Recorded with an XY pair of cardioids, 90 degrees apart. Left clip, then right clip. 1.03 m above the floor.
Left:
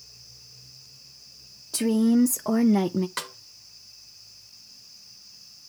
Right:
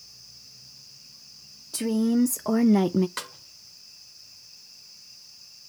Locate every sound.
1.7 s a woman speaking: 30° left, 0.8 m; by 3.1 s 30° right, 0.5 m
3.2 s a snare drum: 15° left, 1.0 m